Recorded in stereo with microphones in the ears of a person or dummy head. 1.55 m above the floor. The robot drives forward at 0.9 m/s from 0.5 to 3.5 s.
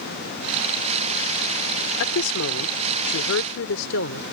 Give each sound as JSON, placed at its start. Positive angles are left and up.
{"t": 2.0, "sound": "a woman speaking", "side_deg": 80}